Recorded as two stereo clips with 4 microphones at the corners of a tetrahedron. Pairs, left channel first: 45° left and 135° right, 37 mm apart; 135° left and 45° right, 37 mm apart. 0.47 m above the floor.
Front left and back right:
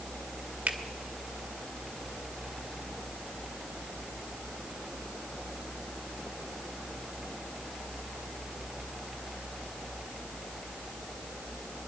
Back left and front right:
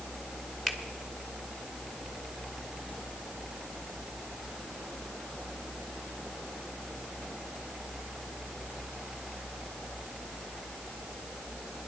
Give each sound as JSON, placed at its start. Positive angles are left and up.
{"t": 0.7, "sound": "a finger snap", "azimuth_deg": -150, "distance_m": 1.5}